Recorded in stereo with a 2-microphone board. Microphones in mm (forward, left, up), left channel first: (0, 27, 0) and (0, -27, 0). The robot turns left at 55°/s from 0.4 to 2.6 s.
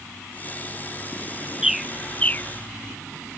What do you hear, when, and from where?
1.6 s a bird: 10° right (ahead or behind); by 2.5 s 40° left (ahead or behind)